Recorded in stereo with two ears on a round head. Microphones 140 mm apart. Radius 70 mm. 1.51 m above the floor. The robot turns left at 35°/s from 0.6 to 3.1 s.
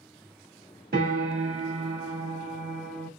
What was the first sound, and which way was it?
A piano, 105° right.